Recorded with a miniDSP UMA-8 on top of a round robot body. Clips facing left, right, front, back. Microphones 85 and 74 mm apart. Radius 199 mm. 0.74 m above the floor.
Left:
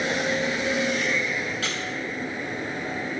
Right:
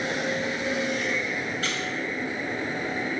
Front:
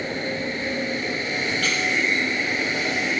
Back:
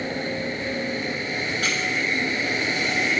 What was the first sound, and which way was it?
A squeak, 110° left.